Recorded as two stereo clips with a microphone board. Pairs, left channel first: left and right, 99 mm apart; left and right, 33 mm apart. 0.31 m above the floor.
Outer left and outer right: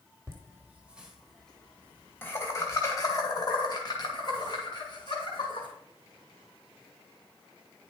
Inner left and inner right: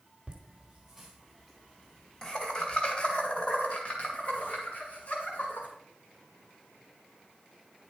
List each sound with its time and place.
0.3 s laughter: 30° right (ahead or behind), 1.0 m; by 5.7 s 50° left (ahead or behind), 2.5 m